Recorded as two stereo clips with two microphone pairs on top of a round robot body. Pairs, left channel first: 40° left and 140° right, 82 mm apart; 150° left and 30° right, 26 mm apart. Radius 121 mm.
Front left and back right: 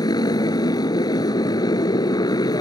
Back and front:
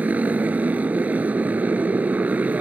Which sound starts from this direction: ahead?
A motorcycle, at 0.0 s.